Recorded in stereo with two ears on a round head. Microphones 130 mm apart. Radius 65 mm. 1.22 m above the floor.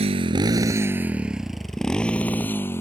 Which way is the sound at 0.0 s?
40° right (ahead or behind).